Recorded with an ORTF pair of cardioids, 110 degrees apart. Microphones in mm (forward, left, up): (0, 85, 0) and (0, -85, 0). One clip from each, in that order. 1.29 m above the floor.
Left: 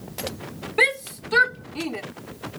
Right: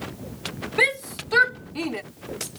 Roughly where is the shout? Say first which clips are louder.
Left 1 dB; ahead.